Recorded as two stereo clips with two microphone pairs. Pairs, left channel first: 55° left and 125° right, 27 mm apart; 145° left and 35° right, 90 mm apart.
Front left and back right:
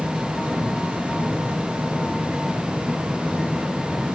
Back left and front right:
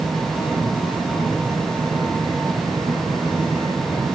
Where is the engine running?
115° right, 9.5 m.